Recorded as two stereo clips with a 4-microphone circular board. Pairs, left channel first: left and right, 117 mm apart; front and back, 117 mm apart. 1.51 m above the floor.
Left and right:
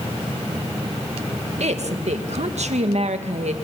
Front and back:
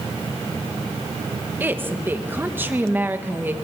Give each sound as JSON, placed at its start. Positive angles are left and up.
{"t": 1.6, "sound": "a woman speaking", "azimuth_deg": -105, "distance_m": 2.0}